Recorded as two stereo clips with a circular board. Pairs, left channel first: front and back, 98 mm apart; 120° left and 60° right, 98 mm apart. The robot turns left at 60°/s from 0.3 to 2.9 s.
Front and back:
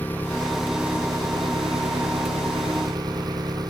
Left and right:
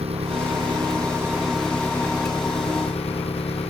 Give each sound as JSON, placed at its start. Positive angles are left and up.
{"t": 0.0, "sound": "an engine running", "azimuth_deg": -70}